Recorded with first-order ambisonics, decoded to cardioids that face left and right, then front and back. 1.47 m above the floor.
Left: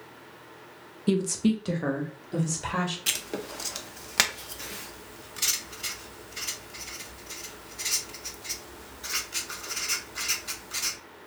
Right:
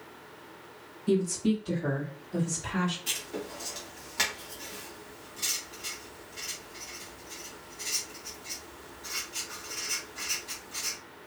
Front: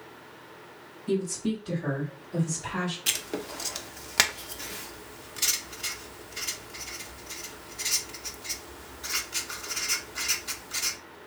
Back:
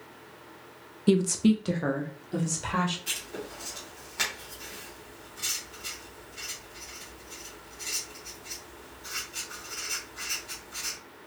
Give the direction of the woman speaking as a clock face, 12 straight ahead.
7 o'clock.